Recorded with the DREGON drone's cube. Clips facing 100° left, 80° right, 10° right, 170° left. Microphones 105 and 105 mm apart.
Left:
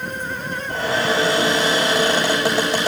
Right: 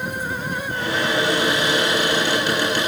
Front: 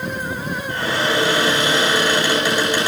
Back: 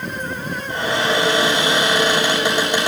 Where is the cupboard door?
105° left, 8 m.